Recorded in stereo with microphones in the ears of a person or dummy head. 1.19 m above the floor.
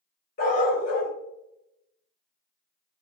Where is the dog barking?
55° left (ahead or behind), 1.0 m.